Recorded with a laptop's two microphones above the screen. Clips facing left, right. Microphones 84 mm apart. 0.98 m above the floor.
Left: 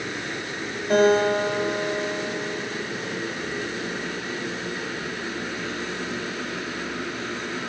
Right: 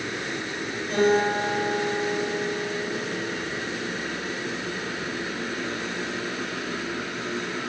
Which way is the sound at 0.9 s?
70° left (ahead or behind).